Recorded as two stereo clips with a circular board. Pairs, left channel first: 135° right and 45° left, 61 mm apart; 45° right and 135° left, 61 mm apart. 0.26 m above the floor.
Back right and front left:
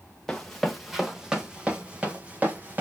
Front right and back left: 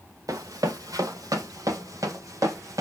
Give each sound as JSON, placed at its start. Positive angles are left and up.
{"t": 0.3, "sound": "running footsteps", "azimuth_deg": 145, "distance_m": 1.4}